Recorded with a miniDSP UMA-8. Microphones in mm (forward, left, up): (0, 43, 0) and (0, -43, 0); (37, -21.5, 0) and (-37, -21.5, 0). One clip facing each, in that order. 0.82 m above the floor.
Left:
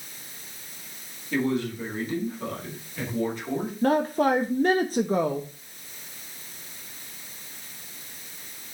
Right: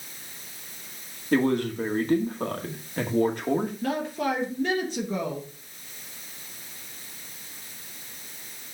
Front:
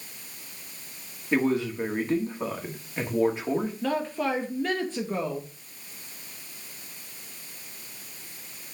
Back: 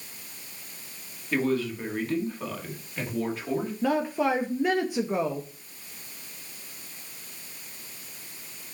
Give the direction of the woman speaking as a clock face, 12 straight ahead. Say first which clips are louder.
Left 6 dB, back 2 dB; 8 o'clock.